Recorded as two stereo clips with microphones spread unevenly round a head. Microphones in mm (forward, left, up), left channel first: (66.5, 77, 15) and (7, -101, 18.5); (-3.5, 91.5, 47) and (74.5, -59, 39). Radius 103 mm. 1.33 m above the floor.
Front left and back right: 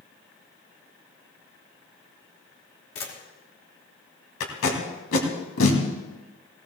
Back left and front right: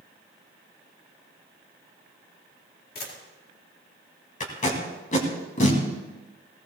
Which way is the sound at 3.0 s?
95° left.